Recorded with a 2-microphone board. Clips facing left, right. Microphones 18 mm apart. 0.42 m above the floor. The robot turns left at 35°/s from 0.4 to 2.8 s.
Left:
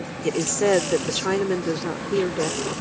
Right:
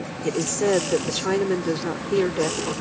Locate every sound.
0.2 s a woman speaking: 20° left (ahead or behind); by 2.8 s 20° right (ahead or behind)